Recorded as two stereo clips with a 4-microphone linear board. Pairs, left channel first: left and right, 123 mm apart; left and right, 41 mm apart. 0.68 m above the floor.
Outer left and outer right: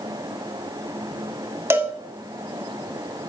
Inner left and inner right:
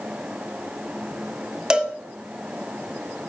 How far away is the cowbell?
About 1.6 m.